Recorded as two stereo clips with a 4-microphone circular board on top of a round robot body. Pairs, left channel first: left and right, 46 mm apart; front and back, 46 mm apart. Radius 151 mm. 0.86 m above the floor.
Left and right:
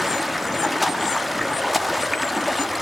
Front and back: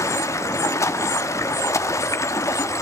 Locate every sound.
0.0 s running water: straight ahead, 1.4 m